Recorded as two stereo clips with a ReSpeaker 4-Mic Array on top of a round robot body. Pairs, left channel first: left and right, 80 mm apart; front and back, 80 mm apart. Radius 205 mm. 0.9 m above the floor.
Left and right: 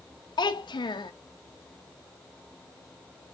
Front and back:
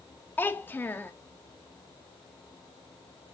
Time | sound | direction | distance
0.4 | a child speaking | 65° left | 1.0 m